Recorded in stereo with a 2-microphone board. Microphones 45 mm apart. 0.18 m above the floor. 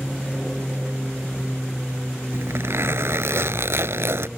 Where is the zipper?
65° right (ahead or behind).